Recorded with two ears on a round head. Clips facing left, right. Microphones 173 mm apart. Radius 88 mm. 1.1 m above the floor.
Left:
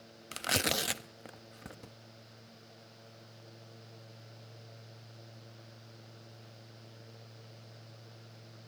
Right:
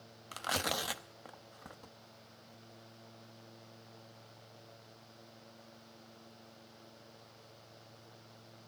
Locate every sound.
0.3 s tearing paper: 25° left (ahead or behind), 0.6 m